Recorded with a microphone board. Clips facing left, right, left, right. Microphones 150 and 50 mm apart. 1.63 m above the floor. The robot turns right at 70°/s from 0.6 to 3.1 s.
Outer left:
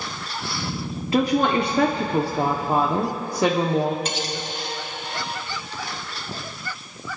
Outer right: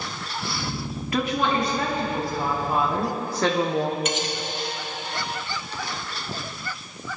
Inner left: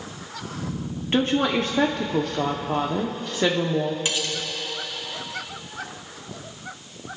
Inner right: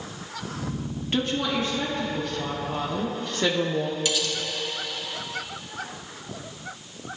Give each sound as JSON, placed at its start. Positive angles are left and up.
{"t": 1.1, "sound": "a woman speaking", "azimuth_deg": 25, "distance_m": 0.9}
{"t": 4.0, "sound": "cutlery clinking", "side_deg": 35, "distance_m": 1.1}